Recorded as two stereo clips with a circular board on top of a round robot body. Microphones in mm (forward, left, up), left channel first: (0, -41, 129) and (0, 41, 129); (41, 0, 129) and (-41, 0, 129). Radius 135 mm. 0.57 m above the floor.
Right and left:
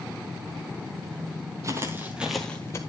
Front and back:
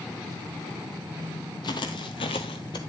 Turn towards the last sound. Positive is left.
turn(degrees=-35)